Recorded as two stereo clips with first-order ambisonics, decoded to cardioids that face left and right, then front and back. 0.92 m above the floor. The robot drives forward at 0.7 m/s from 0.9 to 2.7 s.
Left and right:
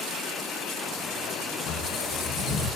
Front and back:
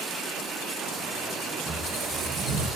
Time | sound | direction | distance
1.7 | a squeak | 110° left | 2.5 m